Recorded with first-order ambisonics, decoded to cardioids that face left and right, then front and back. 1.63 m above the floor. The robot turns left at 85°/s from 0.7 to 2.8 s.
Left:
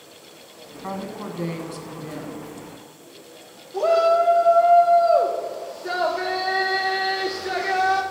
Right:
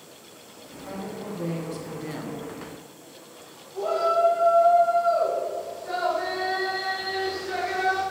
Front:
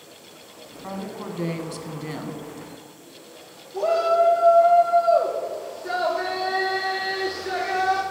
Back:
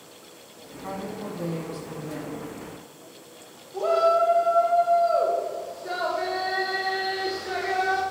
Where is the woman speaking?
85° left, 1.4 m; by 2.4 s 55° right, 1.4 m.